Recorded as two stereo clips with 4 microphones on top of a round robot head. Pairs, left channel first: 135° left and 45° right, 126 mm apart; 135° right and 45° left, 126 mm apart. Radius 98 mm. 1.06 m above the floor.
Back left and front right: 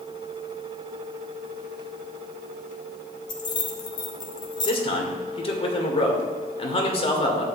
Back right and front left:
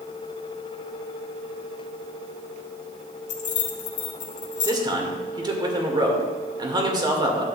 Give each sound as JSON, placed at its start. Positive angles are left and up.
{"t": 3.3, "sound": "keys jangling", "azimuth_deg": -165, "distance_m": 1.2}
{"t": 4.7, "sound": "a man speaking", "azimuth_deg": 100, "distance_m": 2.0}